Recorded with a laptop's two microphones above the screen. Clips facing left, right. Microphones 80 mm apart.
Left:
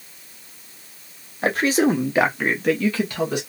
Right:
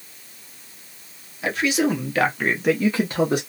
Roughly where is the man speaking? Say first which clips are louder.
Left 3 dB; left.